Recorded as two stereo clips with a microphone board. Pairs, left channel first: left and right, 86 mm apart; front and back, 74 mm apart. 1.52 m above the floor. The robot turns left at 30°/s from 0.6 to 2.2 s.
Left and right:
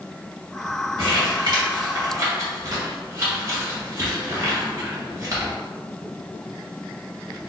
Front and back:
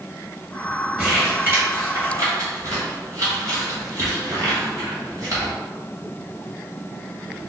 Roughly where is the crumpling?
Right.